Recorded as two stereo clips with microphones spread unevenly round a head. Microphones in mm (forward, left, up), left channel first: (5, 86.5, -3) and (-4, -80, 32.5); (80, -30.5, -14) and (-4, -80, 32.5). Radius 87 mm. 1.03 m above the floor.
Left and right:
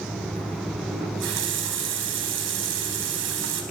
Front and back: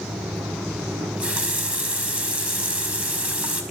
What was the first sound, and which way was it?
A running tap, 75° right.